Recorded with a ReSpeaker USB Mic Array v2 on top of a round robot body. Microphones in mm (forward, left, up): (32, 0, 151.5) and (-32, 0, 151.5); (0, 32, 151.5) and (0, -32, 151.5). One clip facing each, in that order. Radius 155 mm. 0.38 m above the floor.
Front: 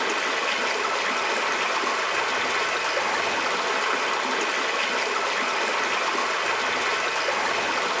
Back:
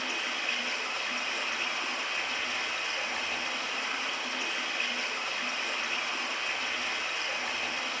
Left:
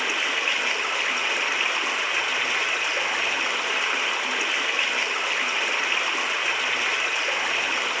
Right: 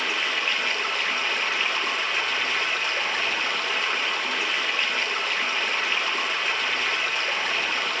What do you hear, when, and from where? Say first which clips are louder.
0.0 s running water: front 9 dB, left 1 dB; 10° left, 0.9 m